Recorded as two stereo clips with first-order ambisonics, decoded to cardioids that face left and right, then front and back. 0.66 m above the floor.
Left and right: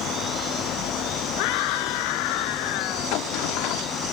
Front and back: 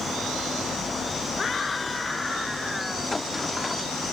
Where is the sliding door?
80° left.